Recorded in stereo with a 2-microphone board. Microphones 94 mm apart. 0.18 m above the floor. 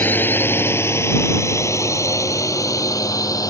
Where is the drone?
20° left (ahead or behind); by 3.5 s 40° left (ahead or behind).